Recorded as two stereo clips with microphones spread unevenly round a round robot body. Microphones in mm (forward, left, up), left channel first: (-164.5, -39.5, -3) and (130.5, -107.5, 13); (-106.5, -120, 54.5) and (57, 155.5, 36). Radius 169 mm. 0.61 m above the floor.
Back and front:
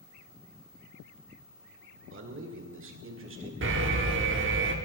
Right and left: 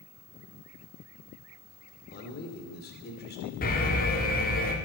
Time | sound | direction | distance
2.1 | a man speaking | 60° right | 2 m
3.6 | an alarm | 60° right | 1.6 m